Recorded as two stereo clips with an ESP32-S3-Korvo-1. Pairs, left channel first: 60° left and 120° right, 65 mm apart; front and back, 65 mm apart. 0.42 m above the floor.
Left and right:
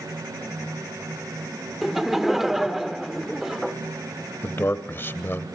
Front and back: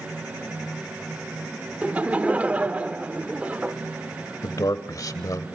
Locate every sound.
1.8 s laughter: 165° left, 1.0 m
4.4 s a man speaking: 10° left, 1.4 m